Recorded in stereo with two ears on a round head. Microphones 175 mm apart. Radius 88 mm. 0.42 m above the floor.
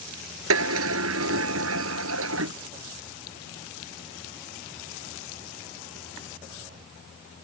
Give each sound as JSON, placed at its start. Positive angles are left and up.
{"t": 0.5, "sound": "a sliding door", "side_deg": -75}